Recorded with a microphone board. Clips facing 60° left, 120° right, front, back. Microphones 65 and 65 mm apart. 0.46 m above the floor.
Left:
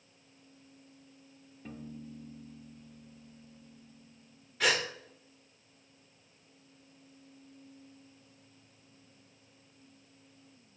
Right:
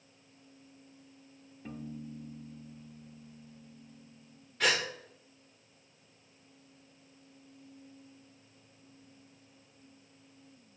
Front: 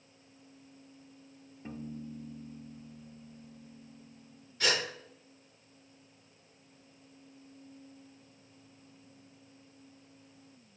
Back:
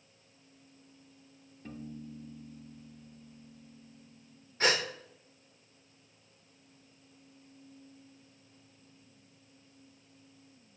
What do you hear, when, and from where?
1.6 s a piano: 40° right, 0.8 m
4.6 s a gasp: 150° left, 1.4 m